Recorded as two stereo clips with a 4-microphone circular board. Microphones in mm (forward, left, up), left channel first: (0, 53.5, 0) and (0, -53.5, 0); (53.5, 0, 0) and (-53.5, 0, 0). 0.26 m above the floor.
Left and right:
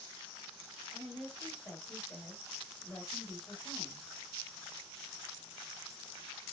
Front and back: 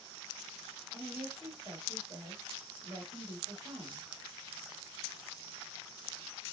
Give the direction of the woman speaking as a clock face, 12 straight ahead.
7 o'clock.